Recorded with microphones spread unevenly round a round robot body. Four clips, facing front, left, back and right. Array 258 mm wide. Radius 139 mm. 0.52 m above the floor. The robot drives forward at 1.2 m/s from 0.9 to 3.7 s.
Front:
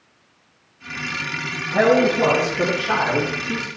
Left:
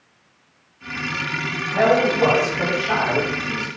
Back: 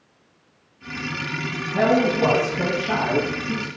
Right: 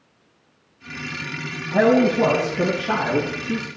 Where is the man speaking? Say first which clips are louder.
Right 1 dB, front 3 dB; 95° right, 4.5 m; by 3.7 s 125° right, 5 m.